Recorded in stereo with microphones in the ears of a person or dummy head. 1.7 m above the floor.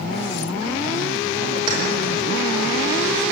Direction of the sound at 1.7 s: 25° right (ahead or behind).